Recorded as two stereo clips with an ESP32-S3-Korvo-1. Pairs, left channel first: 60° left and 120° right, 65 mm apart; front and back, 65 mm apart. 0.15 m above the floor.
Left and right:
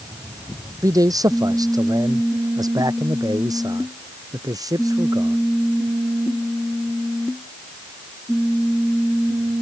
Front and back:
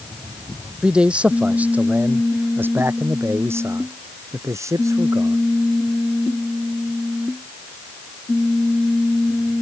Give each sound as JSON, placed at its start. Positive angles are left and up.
{"t": 0.8, "sound": "a man speaking", "azimuth_deg": -105}